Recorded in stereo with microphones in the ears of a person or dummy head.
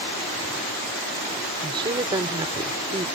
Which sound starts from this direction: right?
A woman speaking, at 1.6 s.